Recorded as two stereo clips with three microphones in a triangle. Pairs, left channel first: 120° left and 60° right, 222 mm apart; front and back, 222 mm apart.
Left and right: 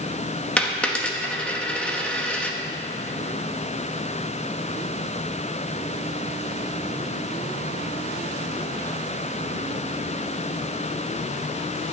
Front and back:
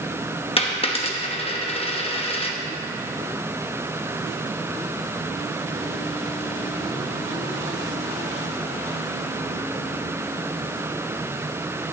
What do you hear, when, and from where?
0.6 s a dropped coin: 40° left, 0.9 m